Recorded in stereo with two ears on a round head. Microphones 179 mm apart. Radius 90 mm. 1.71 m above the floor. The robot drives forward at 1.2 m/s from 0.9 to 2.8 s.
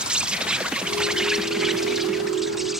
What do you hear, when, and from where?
0.0 s an insect: 5° right (ahead or behind); by 2.8 s centre (ahead or behind)